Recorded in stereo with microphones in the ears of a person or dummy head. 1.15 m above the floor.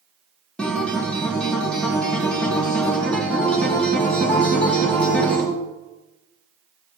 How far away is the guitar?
About 2.5 m.